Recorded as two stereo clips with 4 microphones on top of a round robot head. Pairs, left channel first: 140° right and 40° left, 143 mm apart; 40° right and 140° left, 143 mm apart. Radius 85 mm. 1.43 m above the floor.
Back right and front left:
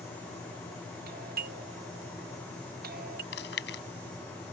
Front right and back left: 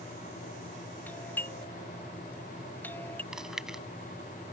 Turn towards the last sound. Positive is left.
turn(degrees=-135)